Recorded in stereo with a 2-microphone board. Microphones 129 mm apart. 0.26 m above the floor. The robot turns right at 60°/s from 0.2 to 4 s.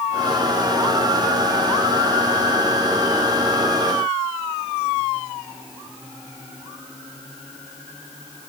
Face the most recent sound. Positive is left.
No sound to turn to.